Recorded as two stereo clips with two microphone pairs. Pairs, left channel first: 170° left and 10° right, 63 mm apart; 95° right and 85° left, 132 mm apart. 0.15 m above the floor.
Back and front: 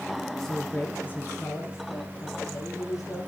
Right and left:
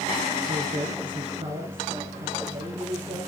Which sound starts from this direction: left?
A man speaking, at 0.4 s.